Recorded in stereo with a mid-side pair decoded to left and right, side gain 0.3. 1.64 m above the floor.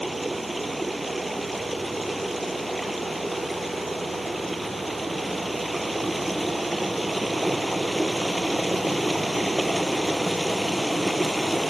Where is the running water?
15° right.